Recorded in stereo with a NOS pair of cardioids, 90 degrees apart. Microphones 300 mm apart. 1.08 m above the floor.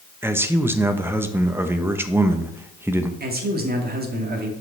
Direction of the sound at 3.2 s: 30° right.